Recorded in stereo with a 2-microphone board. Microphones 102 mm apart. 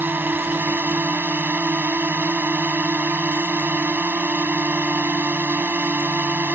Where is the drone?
20° right (ahead or behind).